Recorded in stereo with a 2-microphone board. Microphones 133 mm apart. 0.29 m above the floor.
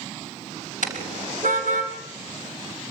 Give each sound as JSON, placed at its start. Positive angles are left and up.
{"t": 0.8, "sound": "a car horn", "side_deg": -80, "distance_m": 4.5}